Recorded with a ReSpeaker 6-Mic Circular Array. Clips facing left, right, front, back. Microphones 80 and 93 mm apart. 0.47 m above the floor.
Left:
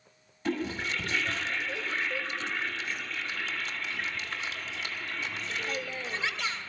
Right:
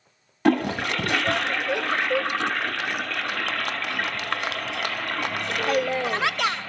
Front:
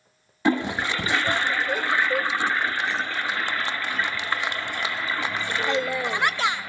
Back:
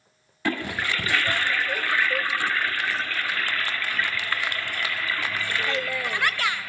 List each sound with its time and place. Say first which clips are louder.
0.5 s a toilet flushing: right 10 dB, front 4 dB; 70° right, 0.5 m